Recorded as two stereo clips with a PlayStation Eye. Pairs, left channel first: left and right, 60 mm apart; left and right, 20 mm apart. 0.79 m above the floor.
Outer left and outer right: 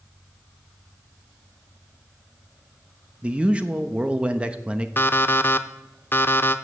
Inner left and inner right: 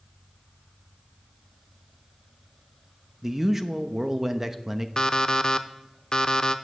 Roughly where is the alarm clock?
Left.